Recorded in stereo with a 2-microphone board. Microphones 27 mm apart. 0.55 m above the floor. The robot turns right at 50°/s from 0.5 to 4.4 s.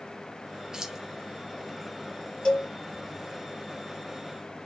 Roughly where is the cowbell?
Left.